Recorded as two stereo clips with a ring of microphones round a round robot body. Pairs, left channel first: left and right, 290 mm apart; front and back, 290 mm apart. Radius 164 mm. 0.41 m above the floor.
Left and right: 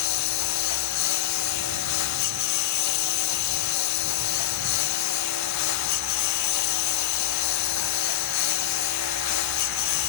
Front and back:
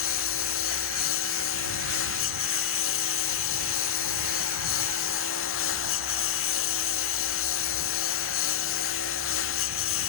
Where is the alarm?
No alarm in this recording.